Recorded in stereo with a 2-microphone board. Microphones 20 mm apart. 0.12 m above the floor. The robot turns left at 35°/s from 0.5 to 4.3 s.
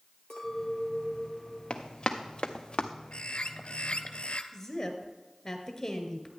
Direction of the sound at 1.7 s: 60° left (ahead or behind).